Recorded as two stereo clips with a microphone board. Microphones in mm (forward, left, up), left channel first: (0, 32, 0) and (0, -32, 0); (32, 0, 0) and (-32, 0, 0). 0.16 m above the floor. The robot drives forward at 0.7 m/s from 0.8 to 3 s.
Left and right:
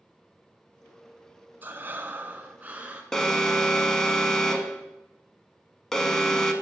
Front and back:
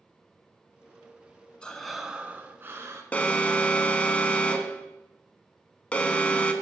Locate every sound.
1.6 s breathing: 60° right, 0.7 m; by 3.0 s 155° right, 1.0 m
3.1 s an alarm: 20° left, 0.7 m